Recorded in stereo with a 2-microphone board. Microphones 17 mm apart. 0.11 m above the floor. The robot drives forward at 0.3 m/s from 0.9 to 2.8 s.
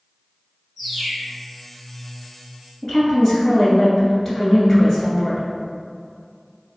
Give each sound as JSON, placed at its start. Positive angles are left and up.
{"t": 0.8, "sound": "a bird", "side_deg": -5, "distance_m": 1.9}
{"t": 2.8, "sound": "a woman speaking", "side_deg": 20, "distance_m": 1.8}